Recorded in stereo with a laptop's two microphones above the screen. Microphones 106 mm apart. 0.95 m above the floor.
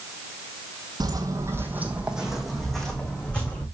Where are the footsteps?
45° right (ahead or behind), 1.8 m; by 3.6 s 15° left (ahead or behind), 3.5 m.